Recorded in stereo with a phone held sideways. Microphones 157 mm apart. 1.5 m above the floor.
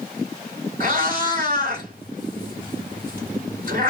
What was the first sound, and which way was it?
A cat meowing, 60° right (ahead or behind).